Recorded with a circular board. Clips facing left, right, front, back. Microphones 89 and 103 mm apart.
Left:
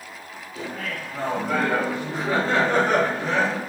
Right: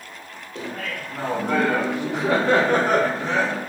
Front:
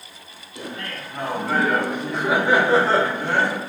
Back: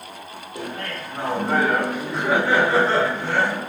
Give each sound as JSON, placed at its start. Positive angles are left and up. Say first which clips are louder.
{"t": 0.6, "sound": "laughter", "louder": "right 1 dB, back 2 dB", "azimuth_deg": -130, "distance_m": 1.3}